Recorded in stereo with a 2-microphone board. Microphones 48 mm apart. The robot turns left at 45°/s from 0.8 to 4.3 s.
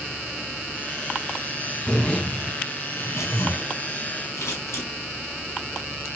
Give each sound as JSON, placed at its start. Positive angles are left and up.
{"t": 1.9, "sound": "a zipper", "azimuth_deg": 165, "distance_m": 5.5}
{"t": 4.4, "sound": "scissors", "side_deg": 85, "distance_m": 5.5}